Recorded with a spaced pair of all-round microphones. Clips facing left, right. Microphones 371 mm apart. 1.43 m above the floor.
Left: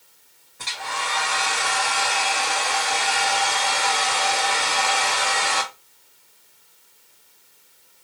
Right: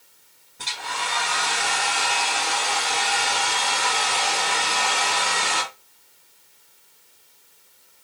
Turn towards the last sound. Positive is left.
turn(degrees=-45)  # may be behind; listen again after turning